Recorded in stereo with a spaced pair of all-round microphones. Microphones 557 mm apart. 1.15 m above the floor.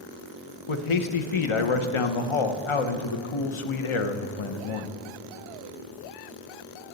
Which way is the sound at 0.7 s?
60° left (ahead or behind).